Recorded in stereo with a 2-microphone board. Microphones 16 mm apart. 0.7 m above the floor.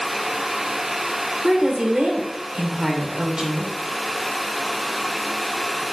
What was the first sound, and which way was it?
A woman speaking, 60° right (ahead or behind).